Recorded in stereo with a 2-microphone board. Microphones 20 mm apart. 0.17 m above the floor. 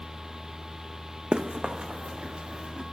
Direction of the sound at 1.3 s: 50° right (ahead or behind).